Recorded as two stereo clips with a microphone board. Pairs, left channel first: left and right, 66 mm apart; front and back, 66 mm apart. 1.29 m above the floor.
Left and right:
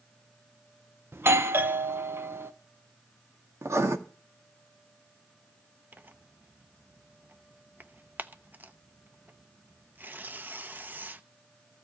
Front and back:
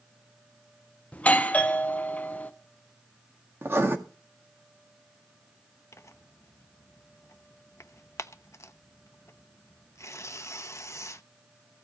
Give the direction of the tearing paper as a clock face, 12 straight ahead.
1 o'clock.